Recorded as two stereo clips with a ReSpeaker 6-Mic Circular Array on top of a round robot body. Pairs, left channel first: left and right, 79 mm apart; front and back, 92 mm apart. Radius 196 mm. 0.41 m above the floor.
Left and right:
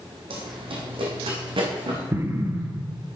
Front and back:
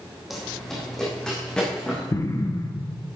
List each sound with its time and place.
0.3 s running footsteps: 90° right, 1.7 m; by 2.0 s 80° right, 3.5 m
2.1 s an explosion: 40° right, 1.3 m